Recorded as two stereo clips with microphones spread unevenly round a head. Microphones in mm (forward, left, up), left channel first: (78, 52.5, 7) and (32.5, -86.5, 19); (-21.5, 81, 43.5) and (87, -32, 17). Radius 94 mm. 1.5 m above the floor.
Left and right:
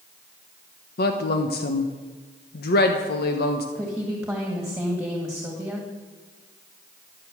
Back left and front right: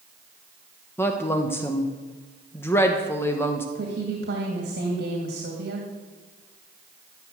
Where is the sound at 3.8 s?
25° right, 2.5 m.